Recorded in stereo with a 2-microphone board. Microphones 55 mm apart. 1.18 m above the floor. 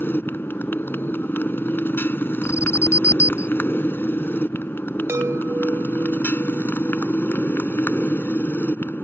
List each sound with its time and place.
0.0 s a motorcycle: 40° left (ahead or behind)
2.4 s an alarm: 55° left (ahead or behind)
5.1 s a chime: 55° right (ahead or behind)